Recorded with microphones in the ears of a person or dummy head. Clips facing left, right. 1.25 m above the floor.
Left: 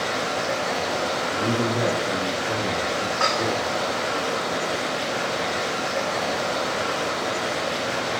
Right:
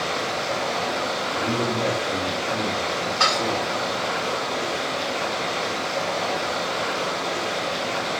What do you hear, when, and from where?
0.0 s running water: 10° left (ahead or behind), 9 m
1.3 s a man speaking: 15° left (ahead or behind), 9.5 m
3.2 s dishes clattering: 50° right (ahead or behind), 2 m